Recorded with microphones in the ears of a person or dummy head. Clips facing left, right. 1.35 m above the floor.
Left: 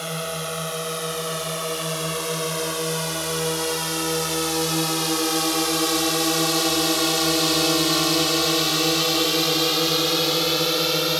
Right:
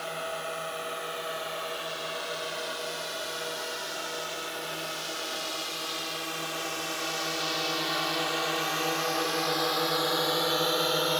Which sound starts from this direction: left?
A drone, at 0.0 s.